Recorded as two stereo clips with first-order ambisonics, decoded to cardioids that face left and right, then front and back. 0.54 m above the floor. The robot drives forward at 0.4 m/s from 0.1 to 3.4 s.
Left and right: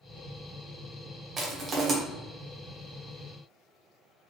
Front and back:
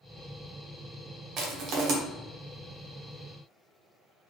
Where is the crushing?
145° right, 0.9 m; by 1.9 s 155° right, 1.1 m.